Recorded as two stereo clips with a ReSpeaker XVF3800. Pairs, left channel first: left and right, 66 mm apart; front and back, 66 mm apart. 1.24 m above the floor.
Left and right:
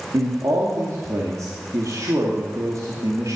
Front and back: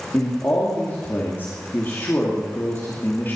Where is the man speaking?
55° right, 2.5 m.